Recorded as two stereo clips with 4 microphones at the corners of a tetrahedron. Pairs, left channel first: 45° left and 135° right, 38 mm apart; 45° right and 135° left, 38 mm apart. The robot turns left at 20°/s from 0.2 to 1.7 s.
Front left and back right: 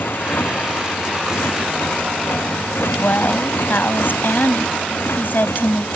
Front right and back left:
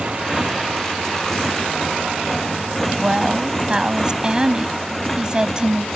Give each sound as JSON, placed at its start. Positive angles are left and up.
{"t": 0.0, "sound": "a motorcycle", "azimuth_deg": 70}
{"t": 3.0, "sound": "a woman speaking", "azimuth_deg": 70}